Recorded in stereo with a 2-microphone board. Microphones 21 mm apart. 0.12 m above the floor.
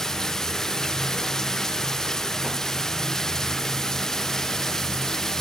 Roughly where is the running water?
Left.